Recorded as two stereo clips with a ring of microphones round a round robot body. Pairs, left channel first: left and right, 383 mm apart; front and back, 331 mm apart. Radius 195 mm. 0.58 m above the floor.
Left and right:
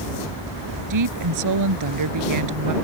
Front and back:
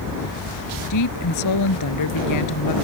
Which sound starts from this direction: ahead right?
A woman speaking, at 0.9 s.